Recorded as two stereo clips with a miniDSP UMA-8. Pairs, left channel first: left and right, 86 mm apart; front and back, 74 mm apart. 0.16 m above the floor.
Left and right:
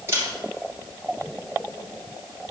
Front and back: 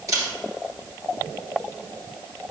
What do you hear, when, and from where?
0.1 s a camera shutter: 145° right, 2.5 m